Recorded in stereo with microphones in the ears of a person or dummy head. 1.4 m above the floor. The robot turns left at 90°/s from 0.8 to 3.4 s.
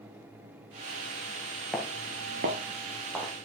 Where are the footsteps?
Centre (ahead or behind), 1.6 m; by 3.3 s 5° left (ahead or behind), 3 m.